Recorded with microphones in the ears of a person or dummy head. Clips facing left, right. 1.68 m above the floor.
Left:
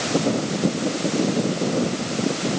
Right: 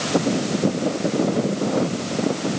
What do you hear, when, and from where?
Only background noise.